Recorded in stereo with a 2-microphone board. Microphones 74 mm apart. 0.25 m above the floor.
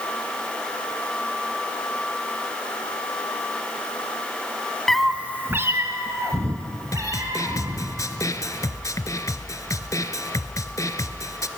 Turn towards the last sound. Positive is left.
turn(degrees=50)  # may be behind; listen again after turning